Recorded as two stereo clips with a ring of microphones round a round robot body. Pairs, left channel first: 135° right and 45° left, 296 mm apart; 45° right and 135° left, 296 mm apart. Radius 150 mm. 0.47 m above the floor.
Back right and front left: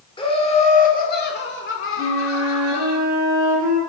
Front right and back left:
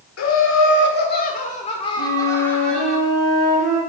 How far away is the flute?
About 3 m.